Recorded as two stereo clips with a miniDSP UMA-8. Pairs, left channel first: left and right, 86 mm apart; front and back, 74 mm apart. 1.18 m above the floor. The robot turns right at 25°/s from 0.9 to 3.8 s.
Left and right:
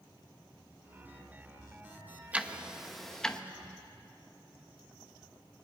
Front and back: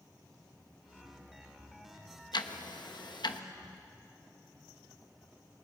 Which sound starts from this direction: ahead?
Ticking, at 2.3 s.